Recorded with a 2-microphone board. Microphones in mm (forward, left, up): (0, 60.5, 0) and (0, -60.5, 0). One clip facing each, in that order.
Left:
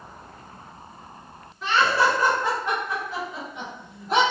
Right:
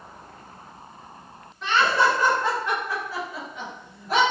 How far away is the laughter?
About 1.6 m.